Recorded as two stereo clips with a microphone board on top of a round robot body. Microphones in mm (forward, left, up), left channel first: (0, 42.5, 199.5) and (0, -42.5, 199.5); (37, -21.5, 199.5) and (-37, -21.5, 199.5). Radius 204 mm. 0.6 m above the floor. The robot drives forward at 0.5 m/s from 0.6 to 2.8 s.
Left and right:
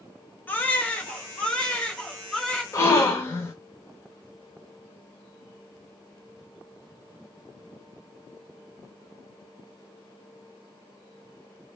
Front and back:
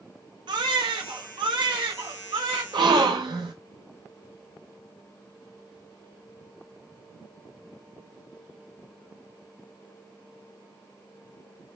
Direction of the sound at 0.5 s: 160° left.